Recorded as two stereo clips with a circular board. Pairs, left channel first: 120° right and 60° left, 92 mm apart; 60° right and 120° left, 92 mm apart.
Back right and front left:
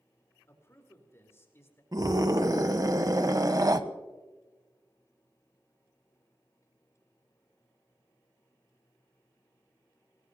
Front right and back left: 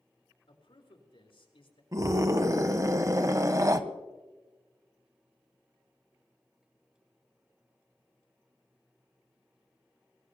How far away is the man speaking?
About 4 m.